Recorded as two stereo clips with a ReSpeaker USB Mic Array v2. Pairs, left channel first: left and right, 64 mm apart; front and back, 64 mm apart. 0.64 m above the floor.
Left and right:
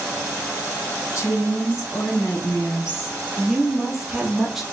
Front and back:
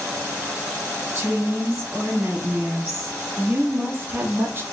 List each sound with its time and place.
1.1 s a woman speaking: 125° left, 1.9 m
3.4 s a woman speaking: 170° right, 0.9 m